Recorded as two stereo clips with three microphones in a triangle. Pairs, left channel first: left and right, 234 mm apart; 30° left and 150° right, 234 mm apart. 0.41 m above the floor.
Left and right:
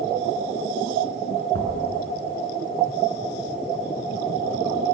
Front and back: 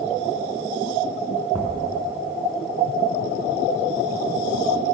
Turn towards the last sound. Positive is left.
turn(degrees=-70)